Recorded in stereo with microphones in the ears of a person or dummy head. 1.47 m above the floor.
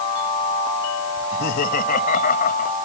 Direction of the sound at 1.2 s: 55° left (ahead or behind).